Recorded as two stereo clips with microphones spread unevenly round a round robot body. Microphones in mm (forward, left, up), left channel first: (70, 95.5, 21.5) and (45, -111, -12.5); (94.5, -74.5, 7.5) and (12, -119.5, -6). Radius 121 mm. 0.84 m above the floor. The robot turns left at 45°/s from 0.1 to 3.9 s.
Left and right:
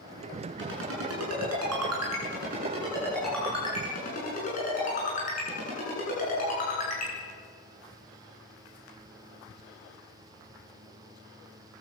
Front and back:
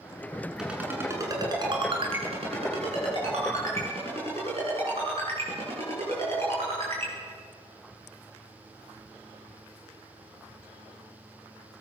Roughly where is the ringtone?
Right.